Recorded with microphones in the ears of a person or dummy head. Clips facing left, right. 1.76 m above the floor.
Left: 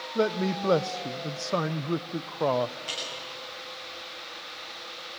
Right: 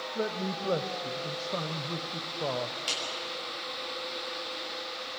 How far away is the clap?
About 8.5 m.